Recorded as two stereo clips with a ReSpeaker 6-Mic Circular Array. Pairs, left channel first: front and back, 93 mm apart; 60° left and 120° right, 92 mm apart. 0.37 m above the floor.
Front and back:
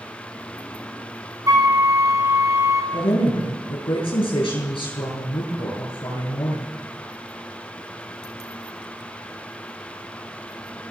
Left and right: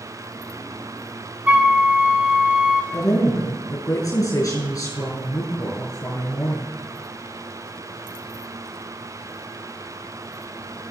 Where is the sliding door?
No sliding door in this recording.